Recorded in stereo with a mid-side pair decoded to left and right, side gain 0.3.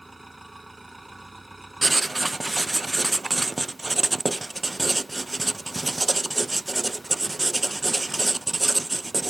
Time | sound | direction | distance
0.0 | an engine running | 15° right | ?
1.8 | writing | 25° right | ?